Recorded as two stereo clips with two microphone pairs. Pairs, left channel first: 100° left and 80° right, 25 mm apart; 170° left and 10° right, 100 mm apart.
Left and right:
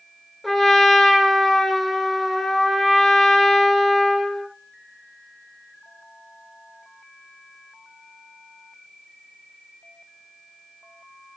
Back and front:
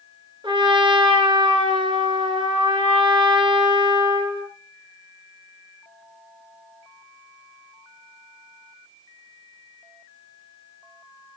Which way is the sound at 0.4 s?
20° left.